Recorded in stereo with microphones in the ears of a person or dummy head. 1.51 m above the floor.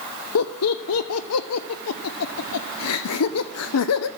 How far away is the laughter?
About 0.6 m.